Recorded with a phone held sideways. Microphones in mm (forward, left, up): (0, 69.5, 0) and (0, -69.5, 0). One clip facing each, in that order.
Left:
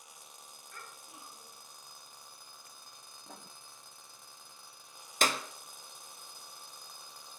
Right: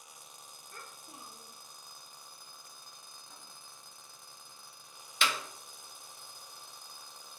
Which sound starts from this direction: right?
A child speaking, at 0.7 s.